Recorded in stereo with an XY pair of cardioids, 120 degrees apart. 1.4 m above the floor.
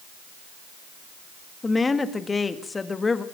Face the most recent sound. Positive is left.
turn(degrees=20)